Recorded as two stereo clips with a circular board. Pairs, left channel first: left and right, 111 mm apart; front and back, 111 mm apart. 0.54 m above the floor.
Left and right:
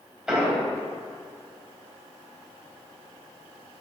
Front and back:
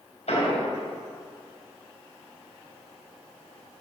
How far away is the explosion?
About 3 m.